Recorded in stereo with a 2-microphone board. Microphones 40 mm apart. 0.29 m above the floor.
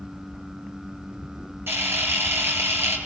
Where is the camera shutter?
75° right (ahead or behind), 5.5 m.